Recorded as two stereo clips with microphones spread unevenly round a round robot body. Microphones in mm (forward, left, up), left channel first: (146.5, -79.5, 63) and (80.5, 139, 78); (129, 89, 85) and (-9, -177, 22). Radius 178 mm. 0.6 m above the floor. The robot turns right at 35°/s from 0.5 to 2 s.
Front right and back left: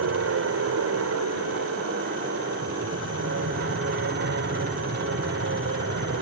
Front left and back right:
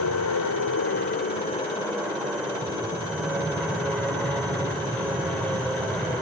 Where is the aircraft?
105° left; by 6.2 s 155° left.